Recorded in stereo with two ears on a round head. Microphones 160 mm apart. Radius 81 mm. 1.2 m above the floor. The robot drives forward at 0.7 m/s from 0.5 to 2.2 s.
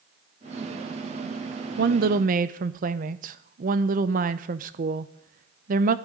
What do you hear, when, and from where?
1.8 s a woman speaking: 60° right (ahead or behind), 0.6 m; by 6.0 s 50° right (ahead or behind), 0.7 m